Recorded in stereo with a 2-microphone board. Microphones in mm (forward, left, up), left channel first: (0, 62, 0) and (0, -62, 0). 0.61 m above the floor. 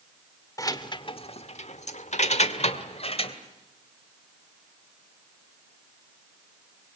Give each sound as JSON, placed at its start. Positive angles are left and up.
{"t": 0.6, "sound": "keys jangling", "side_deg": 25, "distance_m": 1.5}